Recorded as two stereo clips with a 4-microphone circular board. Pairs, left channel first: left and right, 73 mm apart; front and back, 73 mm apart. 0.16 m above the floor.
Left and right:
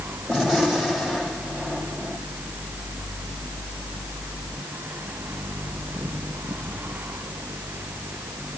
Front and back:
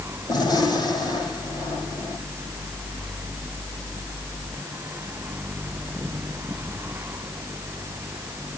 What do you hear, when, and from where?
0.3 s a gunshot: straight ahead, 6 m